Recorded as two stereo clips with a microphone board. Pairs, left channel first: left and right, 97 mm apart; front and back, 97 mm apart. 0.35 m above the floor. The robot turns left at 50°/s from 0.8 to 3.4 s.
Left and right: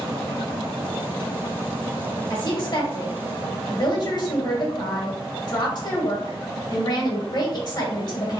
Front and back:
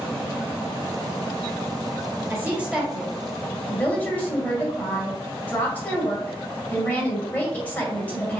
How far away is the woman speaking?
About 1.4 m.